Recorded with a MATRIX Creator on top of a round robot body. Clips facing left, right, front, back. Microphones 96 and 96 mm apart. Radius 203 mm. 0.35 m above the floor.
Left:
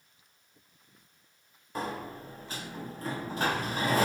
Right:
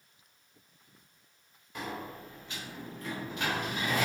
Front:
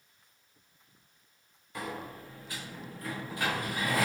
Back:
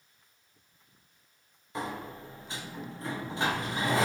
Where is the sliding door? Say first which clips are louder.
Left 4 dB, back 2 dB; 125° left, 0.5 m.